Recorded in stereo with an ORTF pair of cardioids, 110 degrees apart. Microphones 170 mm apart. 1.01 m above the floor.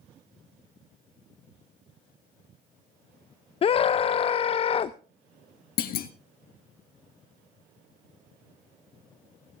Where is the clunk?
65° left, 1.4 m.